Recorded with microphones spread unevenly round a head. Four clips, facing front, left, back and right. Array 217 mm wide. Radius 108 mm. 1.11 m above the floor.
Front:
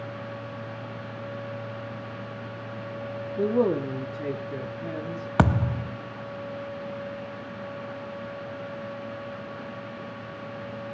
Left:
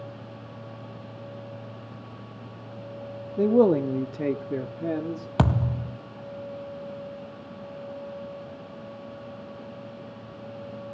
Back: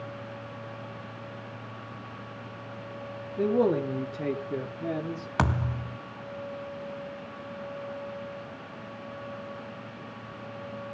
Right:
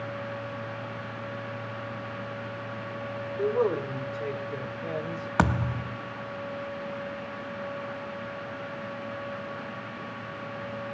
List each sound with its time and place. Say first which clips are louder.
3.4 s a man speaking: left 7 dB, front 1 dB; 75° left, 1.6 m; by 5.3 s 110° left, 2.5 m
5.4 s a thud: even, front 5 dB; straight ahead, 1.0 m